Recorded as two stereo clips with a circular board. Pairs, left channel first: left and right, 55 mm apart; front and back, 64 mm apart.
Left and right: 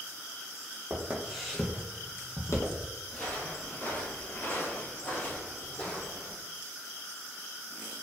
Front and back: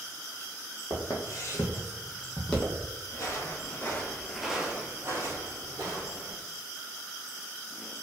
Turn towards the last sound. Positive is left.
turn(degrees=160)